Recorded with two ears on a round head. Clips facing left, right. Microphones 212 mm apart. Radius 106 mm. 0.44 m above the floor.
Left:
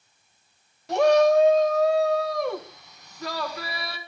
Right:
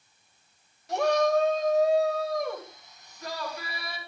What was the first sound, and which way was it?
A shout, 55° left (ahead or behind).